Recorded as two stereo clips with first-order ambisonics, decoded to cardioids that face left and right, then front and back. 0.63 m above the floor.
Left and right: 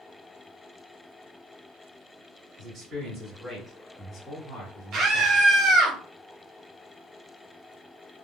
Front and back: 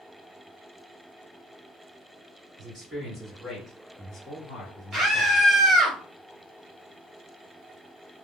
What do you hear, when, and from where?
2.6 s a man speaking: 120° right, 1.4 m; by 5.4 s 70° left, 1.8 m
4.9 s a scream: 120° right, 1.3 m